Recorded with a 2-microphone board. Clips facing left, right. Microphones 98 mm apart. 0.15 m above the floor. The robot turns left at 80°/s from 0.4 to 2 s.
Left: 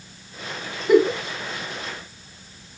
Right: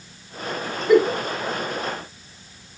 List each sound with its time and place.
0.9 s a giggle: 10° left (ahead or behind), 1.6 m; by 1.2 s 25° left (ahead or behind), 1.6 m